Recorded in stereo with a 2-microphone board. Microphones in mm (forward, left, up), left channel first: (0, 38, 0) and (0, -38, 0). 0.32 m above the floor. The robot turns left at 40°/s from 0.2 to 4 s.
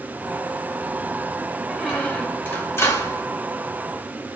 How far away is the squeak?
About 1.0 m.